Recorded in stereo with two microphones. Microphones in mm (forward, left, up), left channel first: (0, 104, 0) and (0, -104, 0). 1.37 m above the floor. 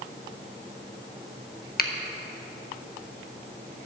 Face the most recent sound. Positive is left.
turn(degrees=50)  # may be behind; listen again after turning